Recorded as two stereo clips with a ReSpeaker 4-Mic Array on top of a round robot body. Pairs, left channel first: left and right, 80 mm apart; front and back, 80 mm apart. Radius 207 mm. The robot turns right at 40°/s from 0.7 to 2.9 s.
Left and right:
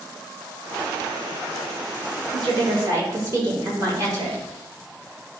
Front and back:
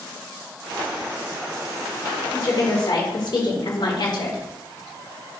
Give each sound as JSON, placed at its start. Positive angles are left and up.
{"t": 2.3, "sound": "a woman speaking", "azimuth_deg": -60, "distance_m": 4.0}